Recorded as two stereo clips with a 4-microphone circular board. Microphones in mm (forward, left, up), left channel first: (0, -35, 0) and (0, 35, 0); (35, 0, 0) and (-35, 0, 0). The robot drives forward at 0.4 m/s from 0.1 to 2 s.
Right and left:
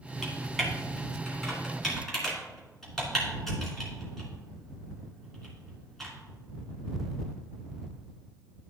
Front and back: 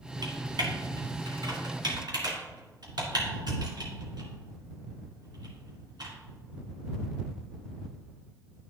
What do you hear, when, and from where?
0.2 s typing on a keyboard: 175° right, 1.9 m